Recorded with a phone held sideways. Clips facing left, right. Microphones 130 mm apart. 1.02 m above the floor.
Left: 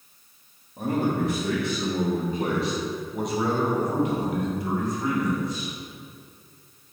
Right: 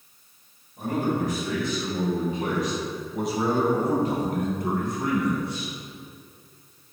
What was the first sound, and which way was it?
A man speaking, 65° left (ahead or behind).